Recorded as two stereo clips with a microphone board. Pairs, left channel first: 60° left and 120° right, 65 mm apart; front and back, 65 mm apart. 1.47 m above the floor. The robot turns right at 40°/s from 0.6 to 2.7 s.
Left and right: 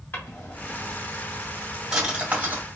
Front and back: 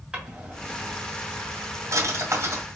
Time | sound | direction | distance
0.1 | a drawer | 110° left | 2 m